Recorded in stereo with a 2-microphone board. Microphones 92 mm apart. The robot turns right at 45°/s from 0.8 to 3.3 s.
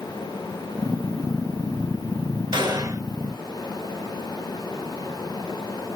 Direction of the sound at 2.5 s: 60° right (ahead or behind).